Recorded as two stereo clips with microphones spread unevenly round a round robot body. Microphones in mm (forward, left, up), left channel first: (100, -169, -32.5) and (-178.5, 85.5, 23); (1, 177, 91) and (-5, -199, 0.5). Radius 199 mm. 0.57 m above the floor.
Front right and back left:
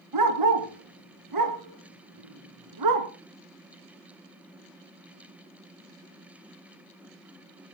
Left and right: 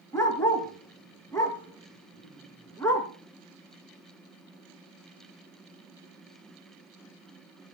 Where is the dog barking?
170° left, 2.5 m.